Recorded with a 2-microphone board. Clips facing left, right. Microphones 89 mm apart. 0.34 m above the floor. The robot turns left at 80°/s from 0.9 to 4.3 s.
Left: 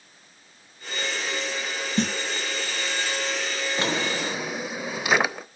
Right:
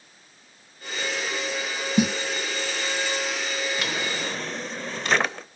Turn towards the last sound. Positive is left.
turn(degrees=15)